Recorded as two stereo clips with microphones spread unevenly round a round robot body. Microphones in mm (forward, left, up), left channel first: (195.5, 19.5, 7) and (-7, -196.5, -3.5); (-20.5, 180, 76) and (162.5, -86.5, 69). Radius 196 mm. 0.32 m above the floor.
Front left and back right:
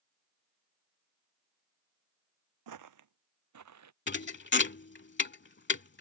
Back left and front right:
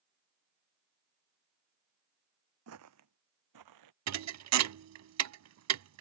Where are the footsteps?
110° right; by 3.9 s 100° right.